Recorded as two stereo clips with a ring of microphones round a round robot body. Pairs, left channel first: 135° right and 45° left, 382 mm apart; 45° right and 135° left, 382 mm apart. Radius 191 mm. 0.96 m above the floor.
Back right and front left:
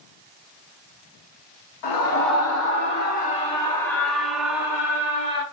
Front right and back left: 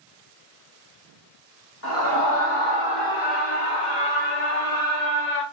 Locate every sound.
1.8 s a scream: 100° right, 1.6 m; by 5.4 s 30° right, 2.5 m